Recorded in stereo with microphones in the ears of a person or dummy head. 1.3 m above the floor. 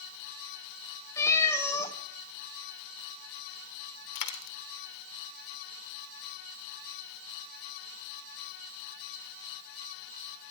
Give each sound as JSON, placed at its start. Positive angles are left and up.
{"t": 1.2, "sound": "a cat meowing", "side_deg": 20, "distance_m": 1.6}
{"t": 4.2, "sound": "a dropped coin", "side_deg": 60, "distance_m": 1.6}